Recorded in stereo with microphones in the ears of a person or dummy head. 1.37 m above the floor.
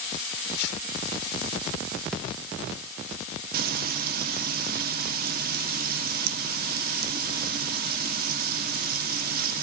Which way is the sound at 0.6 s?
65° left (ahead or behind).